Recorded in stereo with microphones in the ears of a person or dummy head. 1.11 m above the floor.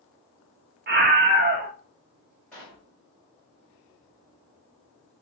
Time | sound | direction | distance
0.9 | a scream | 40° right (ahead or behind) | 0.8 m
2.5 | a pop | 5° left (ahead or behind) | 1.5 m